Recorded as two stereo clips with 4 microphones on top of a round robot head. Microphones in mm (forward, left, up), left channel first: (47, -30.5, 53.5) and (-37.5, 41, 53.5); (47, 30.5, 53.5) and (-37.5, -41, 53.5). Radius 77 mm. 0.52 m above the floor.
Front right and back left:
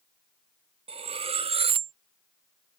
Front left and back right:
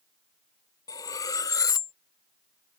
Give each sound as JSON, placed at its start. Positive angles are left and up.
{"t": 0.9, "sound": "cutlery clinking", "azimuth_deg": 100}